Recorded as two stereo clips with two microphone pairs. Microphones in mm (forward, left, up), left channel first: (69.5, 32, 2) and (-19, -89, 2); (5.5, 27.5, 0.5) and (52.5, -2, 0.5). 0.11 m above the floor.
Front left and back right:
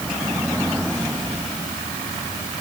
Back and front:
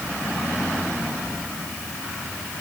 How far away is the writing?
I don't hear writing.